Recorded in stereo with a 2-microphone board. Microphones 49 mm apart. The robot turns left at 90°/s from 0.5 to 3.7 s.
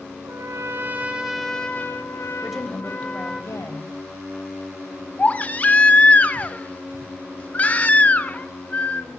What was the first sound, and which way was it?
A trumpet, 100° right.